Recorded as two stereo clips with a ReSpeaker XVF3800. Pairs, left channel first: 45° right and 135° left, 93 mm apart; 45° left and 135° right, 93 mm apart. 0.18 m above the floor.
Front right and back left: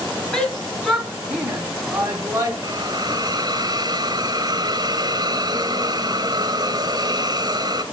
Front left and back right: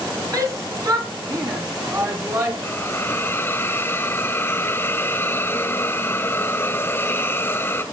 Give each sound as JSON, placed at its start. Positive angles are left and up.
{"t": 0.3, "sound": "a shout", "azimuth_deg": -120, "distance_m": 2.0}
{"t": 2.6, "sound": "a hiss", "azimuth_deg": 105, "distance_m": 0.9}